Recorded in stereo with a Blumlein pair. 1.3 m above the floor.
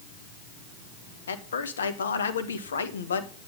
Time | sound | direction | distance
1.3 | a man speaking | 65° left | 1.3 m